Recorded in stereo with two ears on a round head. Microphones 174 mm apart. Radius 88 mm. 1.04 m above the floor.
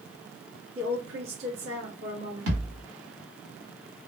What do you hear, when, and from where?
0.8 s a woman speaking: 70° right (ahead or behind), 1.7 m
2.5 s a thud: 70° right (ahead or behind), 2 m